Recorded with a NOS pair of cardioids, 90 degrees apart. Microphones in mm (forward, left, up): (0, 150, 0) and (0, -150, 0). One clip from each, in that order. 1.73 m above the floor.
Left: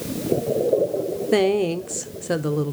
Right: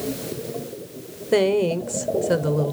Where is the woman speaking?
5° left, 0.9 m.